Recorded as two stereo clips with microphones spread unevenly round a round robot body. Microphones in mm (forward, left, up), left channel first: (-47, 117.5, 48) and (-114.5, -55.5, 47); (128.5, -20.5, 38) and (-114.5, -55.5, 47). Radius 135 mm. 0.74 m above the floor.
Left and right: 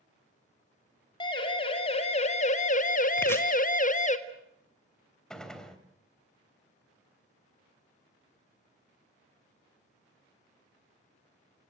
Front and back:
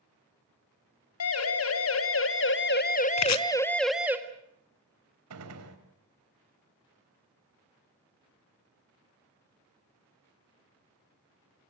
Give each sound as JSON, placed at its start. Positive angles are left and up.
{"t": 1.2, "sound": "a siren", "azimuth_deg": 0, "distance_m": 3.0}
{"t": 3.2, "sound": "chopping", "azimuth_deg": -10, "distance_m": 1.2}
{"t": 5.3, "sound": "a gunshot", "azimuth_deg": 155, "distance_m": 3.5}